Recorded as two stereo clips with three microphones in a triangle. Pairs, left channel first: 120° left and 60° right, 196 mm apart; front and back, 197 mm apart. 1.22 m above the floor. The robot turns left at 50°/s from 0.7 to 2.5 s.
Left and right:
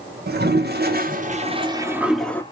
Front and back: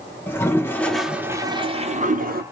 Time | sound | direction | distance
0.3 | a toilet flushing | 75° right | 0.5 m